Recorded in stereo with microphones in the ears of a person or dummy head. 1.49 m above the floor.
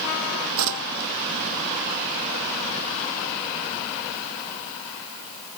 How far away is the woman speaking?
No woman speaking in this recording.